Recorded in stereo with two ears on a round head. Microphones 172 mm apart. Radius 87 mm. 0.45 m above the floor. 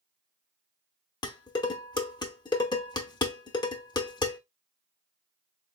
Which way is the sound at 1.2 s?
20° left (ahead or behind).